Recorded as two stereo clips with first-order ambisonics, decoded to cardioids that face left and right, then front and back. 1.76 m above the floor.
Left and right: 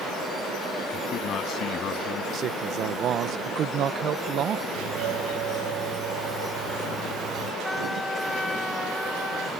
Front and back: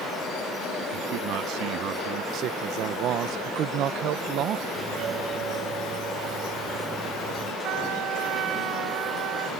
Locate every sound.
0.9 s a man speaking: 145° left
2.3 s a man speaking: 140° right
4.8 s a doorbell: 120° right
7.6 s a trumpet: 175° left